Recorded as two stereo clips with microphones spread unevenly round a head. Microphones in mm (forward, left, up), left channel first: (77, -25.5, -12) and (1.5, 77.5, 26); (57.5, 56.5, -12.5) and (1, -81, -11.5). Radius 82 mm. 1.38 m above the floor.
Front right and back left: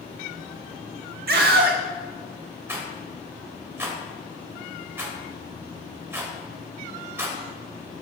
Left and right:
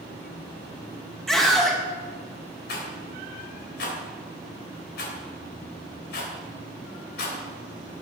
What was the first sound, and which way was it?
A scream, 155° left.